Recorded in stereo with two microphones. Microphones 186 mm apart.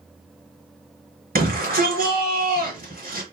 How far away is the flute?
I don't hear a flute.